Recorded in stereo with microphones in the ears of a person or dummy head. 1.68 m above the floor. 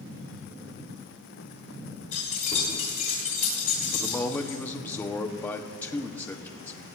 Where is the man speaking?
10° left (ahead or behind), 0.8 m.